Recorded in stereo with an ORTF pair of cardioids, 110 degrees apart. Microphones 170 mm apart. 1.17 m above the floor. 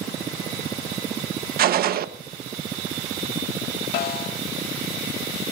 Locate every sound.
1.6 s a gunshot: 60° right, 1.1 m
3.9 s a snare drum: 70° left, 1.6 m